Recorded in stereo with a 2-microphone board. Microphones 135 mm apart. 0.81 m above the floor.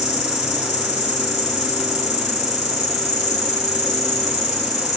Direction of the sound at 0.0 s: 55° left (ahead or behind).